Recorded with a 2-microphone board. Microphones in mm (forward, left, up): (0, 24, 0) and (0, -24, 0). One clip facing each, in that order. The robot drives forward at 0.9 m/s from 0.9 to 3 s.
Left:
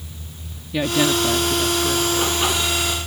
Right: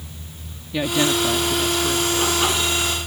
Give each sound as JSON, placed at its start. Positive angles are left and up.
{"t": 0.7, "sound": "a woman speaking", "side_deg": 5}